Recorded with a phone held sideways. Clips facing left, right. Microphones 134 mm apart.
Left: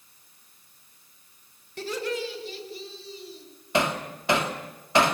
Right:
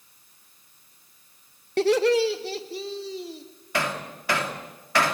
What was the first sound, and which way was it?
Laughter, 70° right (ahead or behind).